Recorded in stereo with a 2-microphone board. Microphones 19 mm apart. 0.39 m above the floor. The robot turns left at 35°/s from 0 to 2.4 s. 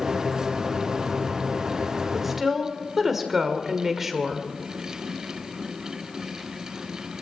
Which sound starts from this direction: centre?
A woman speaking, at 2.1 s.